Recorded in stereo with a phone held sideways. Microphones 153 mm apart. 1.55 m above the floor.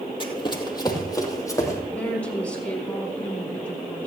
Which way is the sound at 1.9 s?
10° left (ahead or behind).